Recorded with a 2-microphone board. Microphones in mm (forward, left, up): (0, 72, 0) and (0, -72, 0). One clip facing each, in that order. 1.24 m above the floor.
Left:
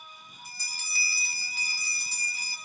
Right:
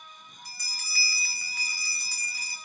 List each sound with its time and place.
0.5 s a bell: 25° left (ahead or behind), 0.9 m